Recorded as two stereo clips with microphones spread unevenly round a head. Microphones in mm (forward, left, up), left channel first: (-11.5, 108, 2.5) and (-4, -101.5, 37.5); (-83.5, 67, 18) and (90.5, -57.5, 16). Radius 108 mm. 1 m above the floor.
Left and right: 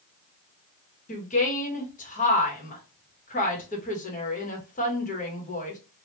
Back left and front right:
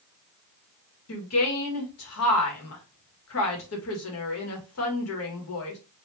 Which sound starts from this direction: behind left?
A woman speaking, at 1.1 s.